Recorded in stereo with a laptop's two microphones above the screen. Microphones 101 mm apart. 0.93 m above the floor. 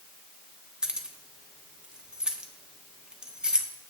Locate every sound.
0.8 s keys jangling: 10° right (ahead or behind), 1.3 m